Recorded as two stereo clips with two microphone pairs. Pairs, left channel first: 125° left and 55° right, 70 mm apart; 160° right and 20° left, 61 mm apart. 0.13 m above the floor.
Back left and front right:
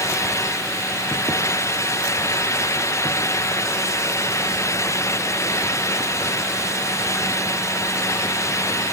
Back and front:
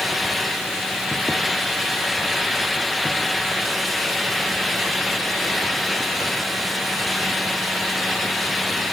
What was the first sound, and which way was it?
Only background noise.